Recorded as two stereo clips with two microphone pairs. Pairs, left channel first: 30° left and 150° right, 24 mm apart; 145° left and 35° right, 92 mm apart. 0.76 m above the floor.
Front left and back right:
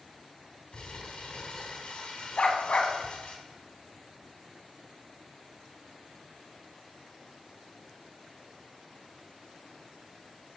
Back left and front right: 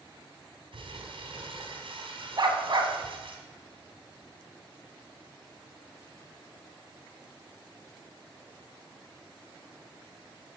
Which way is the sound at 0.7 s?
15° right.